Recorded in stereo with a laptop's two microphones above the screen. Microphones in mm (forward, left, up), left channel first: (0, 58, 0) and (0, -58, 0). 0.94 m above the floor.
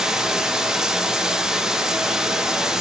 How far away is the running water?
About 1.0 m.